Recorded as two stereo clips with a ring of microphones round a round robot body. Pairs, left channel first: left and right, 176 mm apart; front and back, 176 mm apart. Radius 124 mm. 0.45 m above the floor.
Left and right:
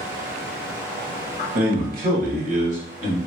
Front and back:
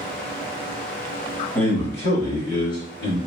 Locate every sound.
1.6 s a man speaking: 70° right, 1.4 m; by 3.2 s 40° right, 1.9 m